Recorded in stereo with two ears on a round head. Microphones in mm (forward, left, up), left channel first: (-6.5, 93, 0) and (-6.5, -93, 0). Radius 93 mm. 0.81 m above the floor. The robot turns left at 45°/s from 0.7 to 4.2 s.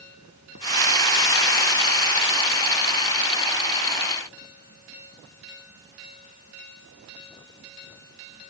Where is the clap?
No clap in this recording.